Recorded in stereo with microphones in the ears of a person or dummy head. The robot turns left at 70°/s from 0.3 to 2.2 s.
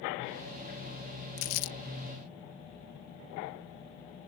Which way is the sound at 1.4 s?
35° left (ahead or behind).